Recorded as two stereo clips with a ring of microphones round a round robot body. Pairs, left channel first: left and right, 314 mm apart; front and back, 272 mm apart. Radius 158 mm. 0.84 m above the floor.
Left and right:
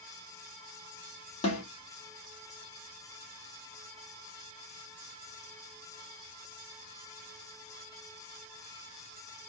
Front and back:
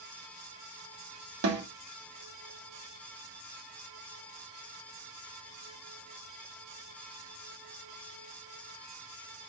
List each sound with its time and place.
1.4 s a snare drum: 160° left, 2 m